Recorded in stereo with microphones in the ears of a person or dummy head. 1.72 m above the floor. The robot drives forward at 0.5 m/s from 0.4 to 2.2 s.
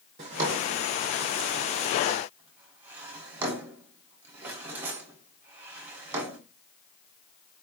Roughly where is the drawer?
Centre.